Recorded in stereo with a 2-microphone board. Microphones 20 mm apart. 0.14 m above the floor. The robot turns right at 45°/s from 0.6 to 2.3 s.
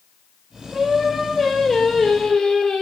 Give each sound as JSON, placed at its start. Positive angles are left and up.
{"t": 0.7, "sound": "singing", "azimuth_deg": -20, "distance_m": 0.5}